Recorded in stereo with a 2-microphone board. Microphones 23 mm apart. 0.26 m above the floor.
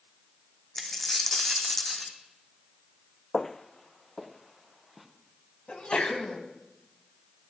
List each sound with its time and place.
0.8 s a dropped coin: 10° left (ahead or behind), 1.7 m
3.3 s footsteps: 20° left (ahead or behind), 0.6 m; by 5.1 s centre (ahead or behind), 2.5 m
5.7 s a sneeze: 50° left (ahead or behind), 2 m